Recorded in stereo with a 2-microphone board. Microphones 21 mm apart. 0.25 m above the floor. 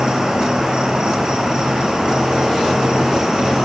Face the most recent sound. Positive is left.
turn(degrees=-40)  # may be behind; listen again after turning